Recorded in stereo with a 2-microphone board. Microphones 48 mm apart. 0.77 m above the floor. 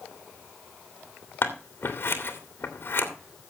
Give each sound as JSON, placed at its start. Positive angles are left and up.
{"t": 1.4, "sound": "scissors", "side_deg": 50, "distance_m": 2.5}